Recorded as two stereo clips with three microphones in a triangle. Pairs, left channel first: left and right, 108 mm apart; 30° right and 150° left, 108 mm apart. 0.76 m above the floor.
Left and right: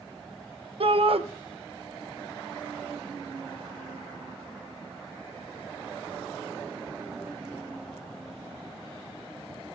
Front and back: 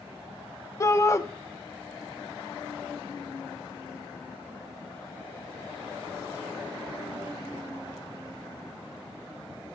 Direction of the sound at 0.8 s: 90° right.